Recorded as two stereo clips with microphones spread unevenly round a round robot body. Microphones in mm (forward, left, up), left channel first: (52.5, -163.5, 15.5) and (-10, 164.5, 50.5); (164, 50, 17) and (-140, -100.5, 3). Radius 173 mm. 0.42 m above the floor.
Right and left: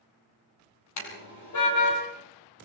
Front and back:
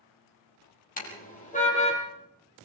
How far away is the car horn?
About 6 m.